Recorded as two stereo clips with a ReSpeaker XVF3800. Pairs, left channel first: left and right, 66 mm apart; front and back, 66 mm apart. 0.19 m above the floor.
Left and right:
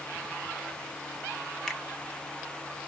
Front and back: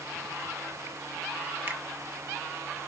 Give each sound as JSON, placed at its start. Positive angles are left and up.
{"t": 1.7, "sound": "a finger snap", "azimuth_deg": 165, "distance_m": 0.9}